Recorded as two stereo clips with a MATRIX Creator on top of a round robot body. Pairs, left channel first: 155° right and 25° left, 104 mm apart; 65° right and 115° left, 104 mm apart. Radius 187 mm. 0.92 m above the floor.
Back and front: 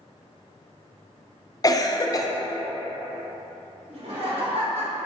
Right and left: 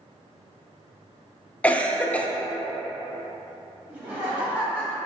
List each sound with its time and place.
1.6 s a cough: 140° right, 0.6 m
3.9 s laughter: 35° left, 1.5 m